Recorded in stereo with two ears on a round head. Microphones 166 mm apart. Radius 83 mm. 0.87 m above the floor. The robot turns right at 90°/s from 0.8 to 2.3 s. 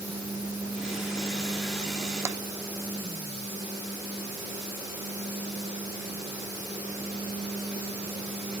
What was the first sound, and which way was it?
Tapping, 15° right (ahead or behind).